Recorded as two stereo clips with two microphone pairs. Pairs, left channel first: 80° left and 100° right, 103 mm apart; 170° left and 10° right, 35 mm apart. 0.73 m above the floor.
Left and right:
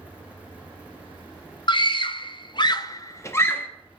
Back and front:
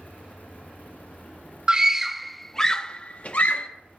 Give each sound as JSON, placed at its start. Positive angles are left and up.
{"t": 1.7, "sound": "a scream", "azimuth_deg": 55, "distance_m": 0.8}